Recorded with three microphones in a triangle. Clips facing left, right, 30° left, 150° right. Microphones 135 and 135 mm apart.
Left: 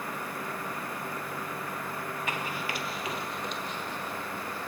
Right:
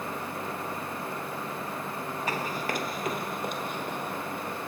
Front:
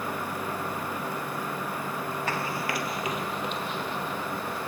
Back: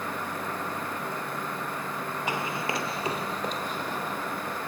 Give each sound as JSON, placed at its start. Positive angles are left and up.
{"t": 2.3, "sound": "running footsteps", "azimuth_deg": -85, "distance_m": 1.3}